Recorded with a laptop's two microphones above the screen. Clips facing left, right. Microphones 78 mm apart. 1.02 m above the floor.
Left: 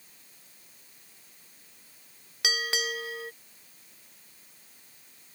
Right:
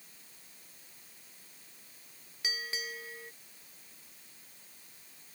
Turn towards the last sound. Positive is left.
turn(degrees=80)